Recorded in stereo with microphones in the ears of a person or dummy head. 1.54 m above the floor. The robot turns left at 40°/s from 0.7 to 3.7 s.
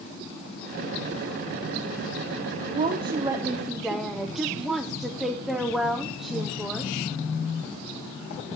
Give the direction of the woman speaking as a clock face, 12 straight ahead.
4 o'clock.